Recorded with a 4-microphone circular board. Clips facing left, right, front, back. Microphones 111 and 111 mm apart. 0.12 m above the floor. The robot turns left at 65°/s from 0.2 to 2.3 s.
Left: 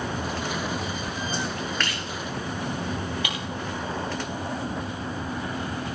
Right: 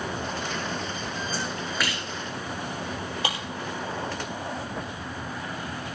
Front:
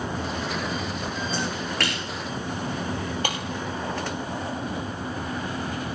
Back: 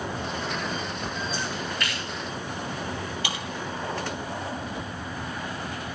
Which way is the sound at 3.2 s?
35° right.